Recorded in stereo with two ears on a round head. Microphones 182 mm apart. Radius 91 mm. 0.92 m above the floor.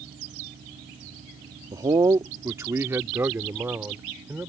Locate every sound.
1.7 s a man speaking: 15° right (ahead or behind); by 4.5 s 10° right (ahead or behind)